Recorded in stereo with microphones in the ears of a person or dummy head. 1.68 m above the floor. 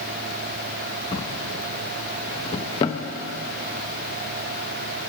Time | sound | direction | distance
1.1 | a drawer | 20° left (ahead or behind) | 1.0 m